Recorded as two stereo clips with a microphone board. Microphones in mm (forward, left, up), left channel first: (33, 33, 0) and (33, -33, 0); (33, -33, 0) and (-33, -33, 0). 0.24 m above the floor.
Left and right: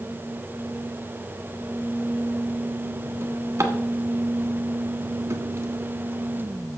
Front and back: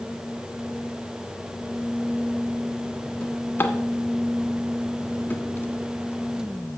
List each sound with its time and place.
3.2 s a drawer: 55° right, 1.3 m